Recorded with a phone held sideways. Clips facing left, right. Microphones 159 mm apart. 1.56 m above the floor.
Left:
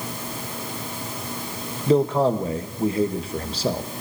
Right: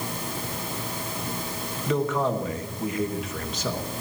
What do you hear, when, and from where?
1.9 s a man speaking: 30° left (ahead or behind), 1.3 m